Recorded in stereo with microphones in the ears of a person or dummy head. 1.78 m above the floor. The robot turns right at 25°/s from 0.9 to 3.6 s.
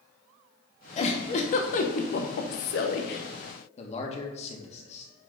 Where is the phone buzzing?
I don't hear a phone buzzing.